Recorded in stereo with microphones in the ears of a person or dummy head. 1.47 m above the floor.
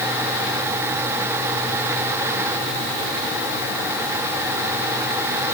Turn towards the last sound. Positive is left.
No sound to turn to.